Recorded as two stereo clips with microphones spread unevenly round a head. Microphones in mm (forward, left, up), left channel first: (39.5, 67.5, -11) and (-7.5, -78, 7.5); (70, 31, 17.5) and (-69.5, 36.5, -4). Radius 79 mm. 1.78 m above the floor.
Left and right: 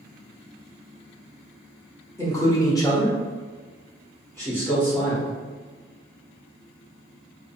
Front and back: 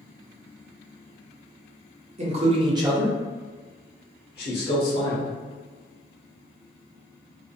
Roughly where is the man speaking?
Behind left.